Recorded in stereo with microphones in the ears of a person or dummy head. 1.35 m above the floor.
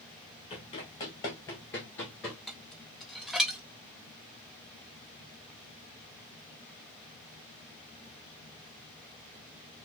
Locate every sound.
0.5 s running footsteps: 30° left (ahead or behind), 1.9 m; by 2.4 s centre (ahead or behind), 1.3 m
2.5 s dishes clattering: 5° left (ahead or behind), 0.6 m